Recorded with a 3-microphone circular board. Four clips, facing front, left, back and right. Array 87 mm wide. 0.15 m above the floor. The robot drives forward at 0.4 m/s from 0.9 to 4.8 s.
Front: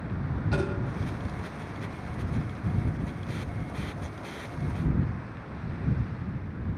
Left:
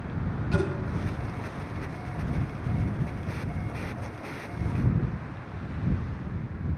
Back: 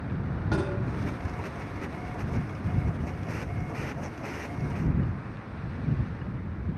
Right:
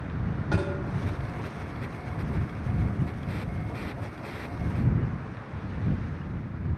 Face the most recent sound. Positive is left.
turn(degrees=-135)